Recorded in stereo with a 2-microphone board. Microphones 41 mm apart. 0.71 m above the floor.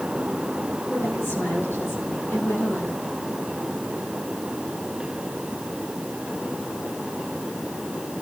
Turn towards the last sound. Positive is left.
turn(degrees=80)